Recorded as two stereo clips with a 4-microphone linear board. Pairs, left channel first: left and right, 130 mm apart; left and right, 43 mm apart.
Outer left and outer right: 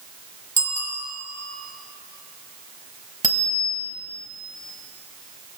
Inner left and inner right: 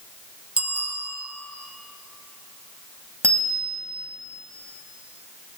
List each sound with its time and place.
0.6 s a bicycle bell: 25° right (ahead or behind), 3.5 m
3.2 s a bicycle bell: 85° right, 5.5 m